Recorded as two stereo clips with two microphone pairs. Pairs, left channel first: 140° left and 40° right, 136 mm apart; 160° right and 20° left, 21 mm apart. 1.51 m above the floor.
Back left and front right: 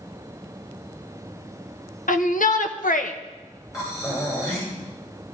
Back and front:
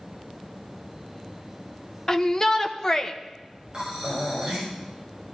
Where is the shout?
135° left, 1.1 m.